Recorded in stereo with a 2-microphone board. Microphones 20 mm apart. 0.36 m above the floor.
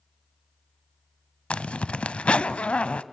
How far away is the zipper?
About 0.5 m.